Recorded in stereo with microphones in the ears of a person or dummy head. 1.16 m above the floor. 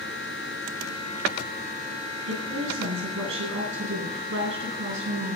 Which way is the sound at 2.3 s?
75° right (ahead or behind).